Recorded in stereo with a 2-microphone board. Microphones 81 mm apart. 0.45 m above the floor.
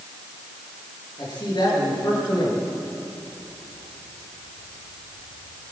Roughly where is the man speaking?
Left.